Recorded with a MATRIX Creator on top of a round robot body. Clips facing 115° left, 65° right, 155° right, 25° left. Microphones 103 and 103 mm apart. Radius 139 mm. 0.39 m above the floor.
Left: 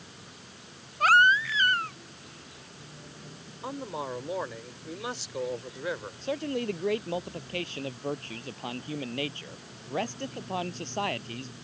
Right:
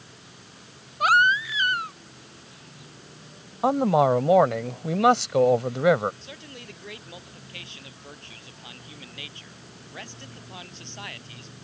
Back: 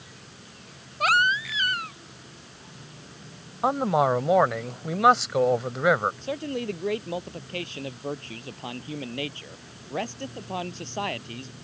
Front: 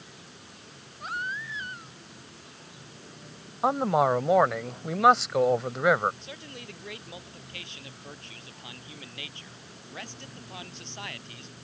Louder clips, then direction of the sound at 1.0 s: Right 1 dB, back 12 dB; 145° right.